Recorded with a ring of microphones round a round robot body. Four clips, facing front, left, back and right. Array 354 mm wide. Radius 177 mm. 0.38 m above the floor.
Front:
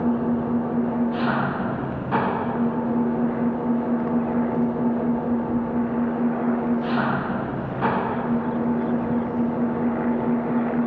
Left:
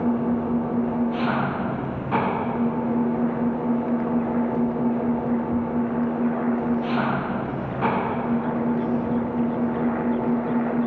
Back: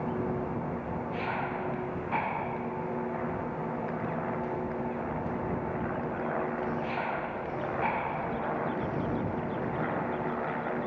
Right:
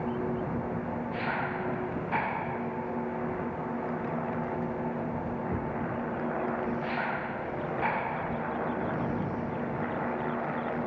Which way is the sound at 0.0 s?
40° left.